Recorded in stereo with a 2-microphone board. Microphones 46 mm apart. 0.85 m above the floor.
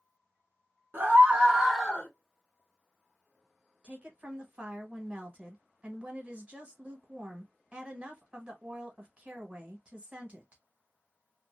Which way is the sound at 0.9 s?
45° right (ahead or behind).